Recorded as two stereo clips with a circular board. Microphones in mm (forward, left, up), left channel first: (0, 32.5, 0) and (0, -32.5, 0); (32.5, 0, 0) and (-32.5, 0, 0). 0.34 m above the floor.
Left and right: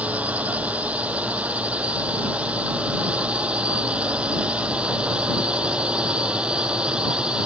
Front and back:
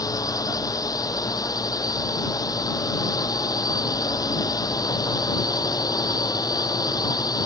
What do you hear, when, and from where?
0.0 s a drone: 25° right; by 7.5 s 15° right